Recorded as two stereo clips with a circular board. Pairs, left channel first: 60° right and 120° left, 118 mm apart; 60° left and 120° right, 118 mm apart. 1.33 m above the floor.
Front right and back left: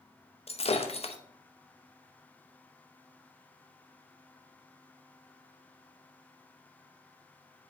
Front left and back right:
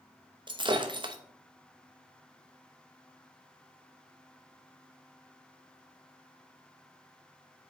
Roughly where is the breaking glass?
Right.